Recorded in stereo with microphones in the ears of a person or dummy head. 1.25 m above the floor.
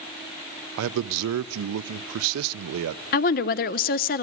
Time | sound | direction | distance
0.8 | a man speaking | 70° right (ahead or behind) | 0.5 m
3.1 | a woman speaking | 40° left (ahead or behind) | 0.5 m